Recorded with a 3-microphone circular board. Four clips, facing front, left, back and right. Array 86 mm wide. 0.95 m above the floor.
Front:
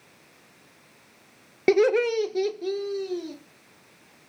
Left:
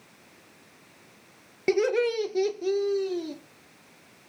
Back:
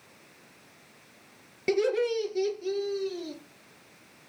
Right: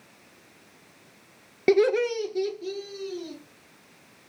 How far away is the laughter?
About 0.5 m.